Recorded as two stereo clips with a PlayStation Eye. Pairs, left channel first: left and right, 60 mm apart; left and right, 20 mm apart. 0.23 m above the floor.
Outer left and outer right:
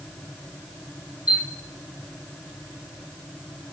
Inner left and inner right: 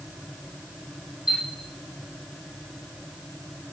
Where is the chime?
25° right (ahead or behind), 6.5 m.